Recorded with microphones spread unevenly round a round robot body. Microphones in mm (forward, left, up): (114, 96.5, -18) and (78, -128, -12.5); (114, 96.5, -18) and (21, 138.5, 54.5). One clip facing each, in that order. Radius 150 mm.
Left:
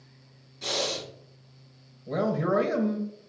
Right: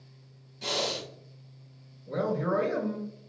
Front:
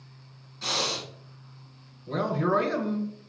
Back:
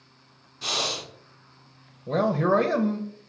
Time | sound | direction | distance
0.6 | breathing | straight behind | 0.8 m
2.1 | a man speaking | 110° left | 0.6 m